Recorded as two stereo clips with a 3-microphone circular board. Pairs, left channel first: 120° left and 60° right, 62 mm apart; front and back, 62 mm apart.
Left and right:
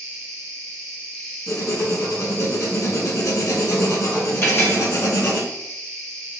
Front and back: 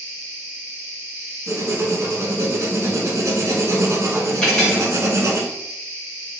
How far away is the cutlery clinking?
About 0.9 m.